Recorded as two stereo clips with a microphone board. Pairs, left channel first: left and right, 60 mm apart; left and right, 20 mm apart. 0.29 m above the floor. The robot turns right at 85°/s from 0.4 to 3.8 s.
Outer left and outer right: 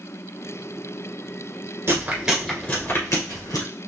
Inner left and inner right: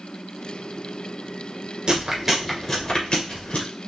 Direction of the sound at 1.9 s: 40° right (ahead or behind).